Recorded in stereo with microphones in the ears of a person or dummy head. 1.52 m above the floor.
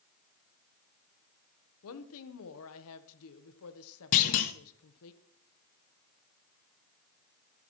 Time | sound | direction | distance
1.8 | a woman speaking | 80° left | 1.1 m
4.1 | a clunk | 40° left (ahead or behind) | 1.0 m